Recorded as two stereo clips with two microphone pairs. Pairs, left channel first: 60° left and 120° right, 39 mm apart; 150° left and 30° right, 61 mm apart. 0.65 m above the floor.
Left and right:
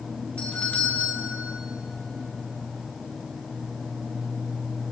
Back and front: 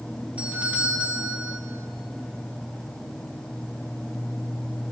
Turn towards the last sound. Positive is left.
turn(degrees=25)